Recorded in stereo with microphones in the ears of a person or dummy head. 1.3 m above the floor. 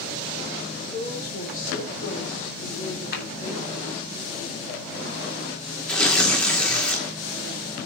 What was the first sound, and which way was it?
A woman speaking, 50° left (ahead or behind).